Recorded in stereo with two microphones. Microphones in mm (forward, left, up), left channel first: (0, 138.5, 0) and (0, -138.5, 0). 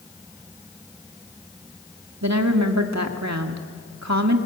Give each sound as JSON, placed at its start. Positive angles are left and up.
{"t": 2.2, "sound": "a woman speaking", "side_deg": -75, "distance_m": 1.9}